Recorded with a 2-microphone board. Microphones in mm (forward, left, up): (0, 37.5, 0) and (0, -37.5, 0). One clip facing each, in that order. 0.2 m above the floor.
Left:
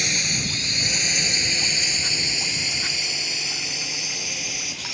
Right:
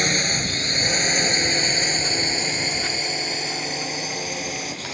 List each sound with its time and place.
0.0 s a drone: 45° right (ahead or behind); by 4.9 s 40° right (ahead or behind)